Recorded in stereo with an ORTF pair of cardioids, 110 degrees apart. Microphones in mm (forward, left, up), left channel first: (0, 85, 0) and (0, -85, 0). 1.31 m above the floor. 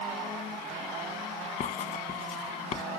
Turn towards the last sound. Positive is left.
turn(degrees=50)